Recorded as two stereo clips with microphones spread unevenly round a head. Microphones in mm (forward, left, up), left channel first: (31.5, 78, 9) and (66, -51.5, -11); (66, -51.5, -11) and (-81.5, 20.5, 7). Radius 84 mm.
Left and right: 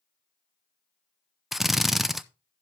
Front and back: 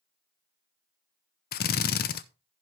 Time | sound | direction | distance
1.5 | a drill | 15° left | 0.6 m